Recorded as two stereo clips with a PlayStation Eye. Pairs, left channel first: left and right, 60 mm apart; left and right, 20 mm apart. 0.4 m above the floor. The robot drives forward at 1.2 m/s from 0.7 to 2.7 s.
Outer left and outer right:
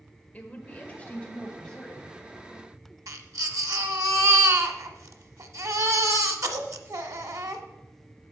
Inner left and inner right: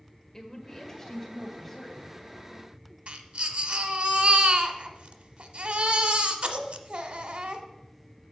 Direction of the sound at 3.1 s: 75° right (ahead or behind).